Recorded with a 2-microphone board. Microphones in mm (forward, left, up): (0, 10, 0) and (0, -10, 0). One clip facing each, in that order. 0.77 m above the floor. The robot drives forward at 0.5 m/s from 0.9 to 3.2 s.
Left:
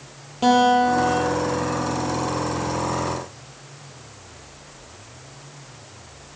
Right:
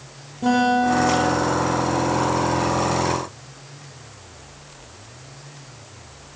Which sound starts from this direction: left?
A guitar, at 0.4 s.